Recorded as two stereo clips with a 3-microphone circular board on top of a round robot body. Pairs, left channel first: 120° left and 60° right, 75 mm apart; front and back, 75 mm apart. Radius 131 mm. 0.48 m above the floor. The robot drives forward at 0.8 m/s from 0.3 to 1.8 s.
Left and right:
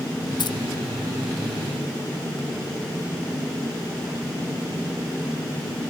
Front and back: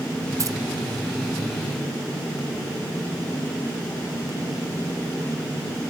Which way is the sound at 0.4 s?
135° left.